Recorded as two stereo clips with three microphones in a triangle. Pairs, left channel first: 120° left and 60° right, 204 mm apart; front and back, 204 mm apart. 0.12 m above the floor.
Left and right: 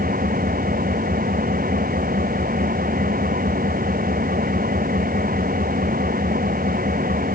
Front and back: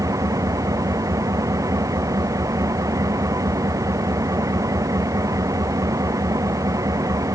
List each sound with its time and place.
0.0 s an engine running: 105° right